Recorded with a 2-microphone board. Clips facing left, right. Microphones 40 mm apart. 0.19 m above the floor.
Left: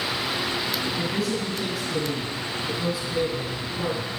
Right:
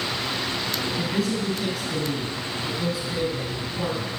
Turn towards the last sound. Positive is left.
turn(degrees=5)  # may be behind; listen again after turning